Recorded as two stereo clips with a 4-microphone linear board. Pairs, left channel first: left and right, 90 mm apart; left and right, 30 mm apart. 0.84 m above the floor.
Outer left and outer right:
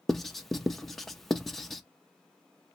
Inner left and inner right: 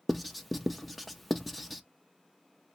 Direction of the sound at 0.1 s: Centre (ahead or behind).